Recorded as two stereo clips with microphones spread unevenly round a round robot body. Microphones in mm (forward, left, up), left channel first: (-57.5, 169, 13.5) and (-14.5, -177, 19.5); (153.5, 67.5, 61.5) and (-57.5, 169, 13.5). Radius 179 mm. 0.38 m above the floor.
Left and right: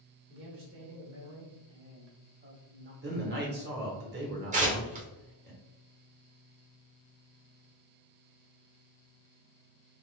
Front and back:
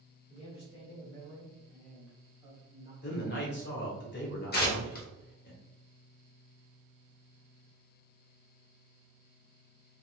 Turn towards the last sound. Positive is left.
turn(degrees=-35)